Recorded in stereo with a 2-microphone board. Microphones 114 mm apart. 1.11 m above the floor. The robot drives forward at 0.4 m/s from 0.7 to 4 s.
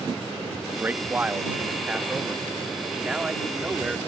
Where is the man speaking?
15° right (ahead or behind); by 4.0 s 5° right (ahead or behind).